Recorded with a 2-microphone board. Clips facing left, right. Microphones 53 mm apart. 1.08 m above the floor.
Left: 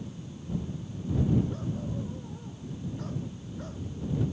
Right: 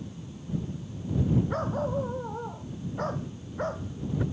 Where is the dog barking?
55° right (ahead or behind); by 4.2 s 45° right (ahead or behind).